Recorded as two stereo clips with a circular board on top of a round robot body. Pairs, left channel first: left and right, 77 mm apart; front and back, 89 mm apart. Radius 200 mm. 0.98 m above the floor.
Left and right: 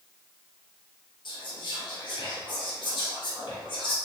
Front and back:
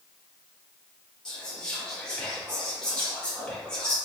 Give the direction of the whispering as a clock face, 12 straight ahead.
9 o'clock.